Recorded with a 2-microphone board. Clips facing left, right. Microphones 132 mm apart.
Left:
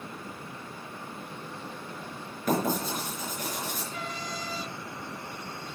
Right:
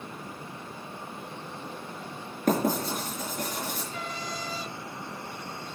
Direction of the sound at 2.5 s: 50° right (ahead or behind).